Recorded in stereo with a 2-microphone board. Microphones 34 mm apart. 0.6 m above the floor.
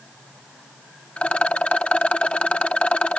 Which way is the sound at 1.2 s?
40° left (ahead or behind).